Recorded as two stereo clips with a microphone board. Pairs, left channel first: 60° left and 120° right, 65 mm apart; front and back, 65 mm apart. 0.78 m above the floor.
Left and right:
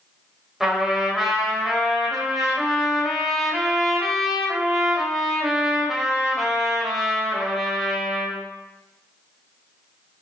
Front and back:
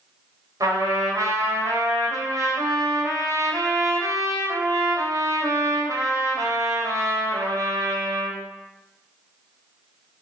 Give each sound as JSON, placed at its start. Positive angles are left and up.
{"t": 0.6, "sound": "a trumpet", "azimuth_deg": 155, "distance_m": 4.0}